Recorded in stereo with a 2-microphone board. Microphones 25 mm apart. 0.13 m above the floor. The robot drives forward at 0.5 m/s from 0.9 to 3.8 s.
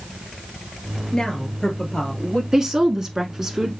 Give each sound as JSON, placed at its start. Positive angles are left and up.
{"t": 1.1, "sound": "a woman speaking", "side_deg": 30, "distance_m": 2.0}
{"t": 2.5, "sound": "a woman speaking", "side_deg": -20, "distance_m": 1.1}